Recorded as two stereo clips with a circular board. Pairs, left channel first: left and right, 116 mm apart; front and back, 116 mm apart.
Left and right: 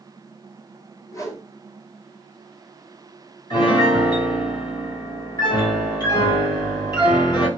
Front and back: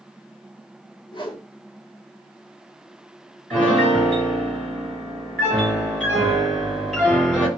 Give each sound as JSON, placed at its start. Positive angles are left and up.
{"t": 1.1, "sound": "a whoosh", "azimuth_deg": 35, "distance_m": 0.7}
{"t": 3.5, "sound": "a piano", "azimuth_deg": 80, "distance_m": 1.9}